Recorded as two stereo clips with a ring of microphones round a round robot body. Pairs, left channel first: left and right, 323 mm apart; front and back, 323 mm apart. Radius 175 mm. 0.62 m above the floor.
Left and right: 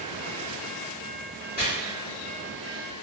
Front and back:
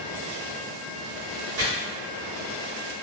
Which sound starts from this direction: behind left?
Chopping, at 1.6 s.